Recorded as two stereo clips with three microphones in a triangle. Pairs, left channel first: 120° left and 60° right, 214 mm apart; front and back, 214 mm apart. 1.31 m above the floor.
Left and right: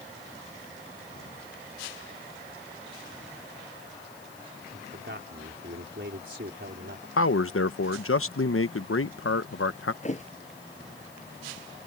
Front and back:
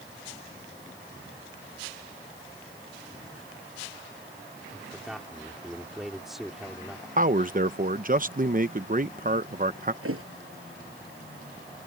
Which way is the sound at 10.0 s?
175° left.